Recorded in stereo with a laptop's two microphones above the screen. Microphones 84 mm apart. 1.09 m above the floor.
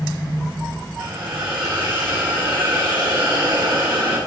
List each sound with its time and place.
1.0 s a hiss: 65° right (ahead or behind), 6 m